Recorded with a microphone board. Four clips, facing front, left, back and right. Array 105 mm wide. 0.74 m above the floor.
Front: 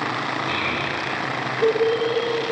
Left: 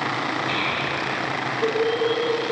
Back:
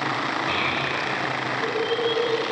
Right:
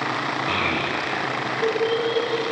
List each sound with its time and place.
0.5 s a child speaking: 110° right, 0.5 m; by 2.4 s 5° left, 2.5 m